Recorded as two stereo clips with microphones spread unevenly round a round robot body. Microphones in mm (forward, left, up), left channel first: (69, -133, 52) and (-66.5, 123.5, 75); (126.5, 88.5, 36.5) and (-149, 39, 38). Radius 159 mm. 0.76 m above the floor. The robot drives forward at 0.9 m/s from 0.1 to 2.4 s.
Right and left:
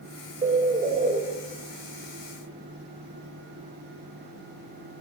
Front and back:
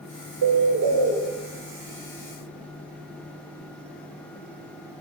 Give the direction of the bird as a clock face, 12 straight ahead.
6 o'clock.